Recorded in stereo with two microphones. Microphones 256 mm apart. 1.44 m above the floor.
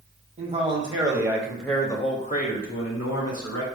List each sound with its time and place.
0.4 s a man speaking: 25° right (ahead or behind), 1.2 m; by 3.6 s 75° left (ahead or behind), 0.9 m